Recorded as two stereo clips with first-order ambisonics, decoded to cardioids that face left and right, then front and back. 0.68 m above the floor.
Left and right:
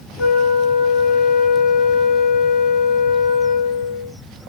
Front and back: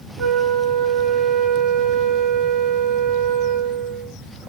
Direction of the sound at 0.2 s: 120° left.